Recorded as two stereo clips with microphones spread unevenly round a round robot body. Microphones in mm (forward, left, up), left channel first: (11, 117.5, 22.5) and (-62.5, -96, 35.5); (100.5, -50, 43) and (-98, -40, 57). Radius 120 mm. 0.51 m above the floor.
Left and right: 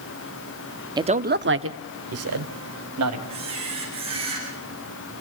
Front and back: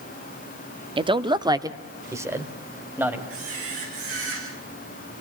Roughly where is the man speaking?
Behind.